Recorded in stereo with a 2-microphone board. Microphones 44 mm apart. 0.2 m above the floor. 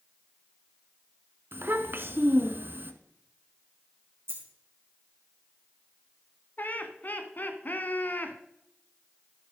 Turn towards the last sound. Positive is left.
turn(degrees=45)  # may be behind; listen again after turning